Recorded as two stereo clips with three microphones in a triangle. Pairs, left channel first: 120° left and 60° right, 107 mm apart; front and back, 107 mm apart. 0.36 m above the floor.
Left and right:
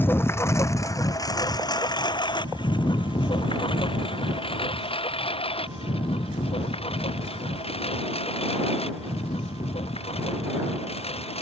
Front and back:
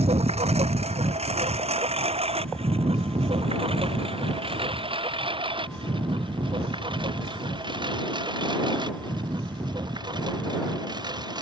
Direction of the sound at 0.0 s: 170° right.